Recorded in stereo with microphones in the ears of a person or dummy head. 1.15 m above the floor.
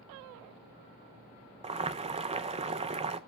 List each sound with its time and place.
1.6 s boiling: 30° right (ahead or behind), 0.5 m